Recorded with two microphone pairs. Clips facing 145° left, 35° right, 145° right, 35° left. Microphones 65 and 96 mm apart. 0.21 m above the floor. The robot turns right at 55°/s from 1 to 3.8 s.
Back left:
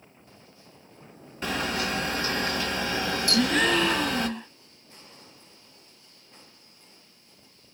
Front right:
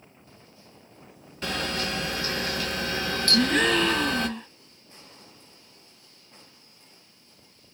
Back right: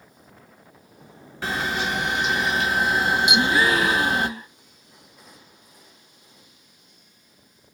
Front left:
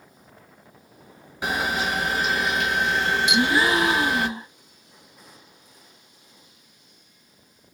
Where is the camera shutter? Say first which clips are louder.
Back left 1 dB, front left 1 dB; 70° left, 1.3 m; by 4.3 s 155° right, 1.3 m.